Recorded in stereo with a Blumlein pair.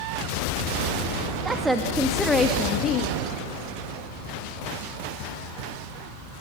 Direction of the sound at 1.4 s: 15° right.